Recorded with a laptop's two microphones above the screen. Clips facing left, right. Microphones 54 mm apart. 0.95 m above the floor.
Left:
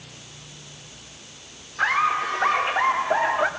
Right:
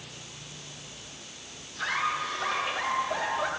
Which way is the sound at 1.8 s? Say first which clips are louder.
Left 8 dB; 65° left (ahead or behind).